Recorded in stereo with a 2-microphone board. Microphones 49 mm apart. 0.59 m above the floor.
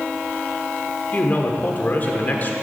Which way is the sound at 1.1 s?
40° left (ahead or behind).